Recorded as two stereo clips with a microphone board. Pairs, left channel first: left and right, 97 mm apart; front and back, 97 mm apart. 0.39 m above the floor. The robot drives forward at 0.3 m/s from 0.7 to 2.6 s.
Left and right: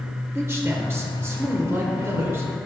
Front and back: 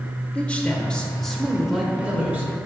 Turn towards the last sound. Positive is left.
turn(degrees=-130)